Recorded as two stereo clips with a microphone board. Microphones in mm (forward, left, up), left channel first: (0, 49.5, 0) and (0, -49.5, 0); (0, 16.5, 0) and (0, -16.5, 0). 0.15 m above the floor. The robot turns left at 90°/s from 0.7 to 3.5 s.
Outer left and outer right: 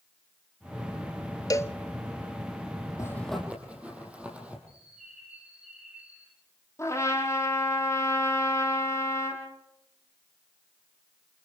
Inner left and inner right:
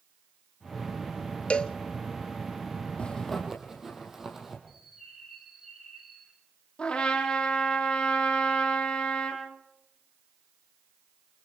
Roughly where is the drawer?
I don't hear a drawer.